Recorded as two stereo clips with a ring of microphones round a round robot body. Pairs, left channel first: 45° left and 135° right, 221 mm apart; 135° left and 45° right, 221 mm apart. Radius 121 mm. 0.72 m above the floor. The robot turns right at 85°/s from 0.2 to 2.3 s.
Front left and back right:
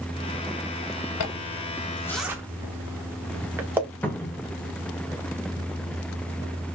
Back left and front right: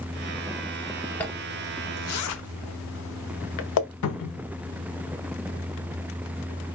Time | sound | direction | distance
1.2 | a zipper | 50° left | 0.7 m
4.0 | a cupboard door | 130° left | 0.7 m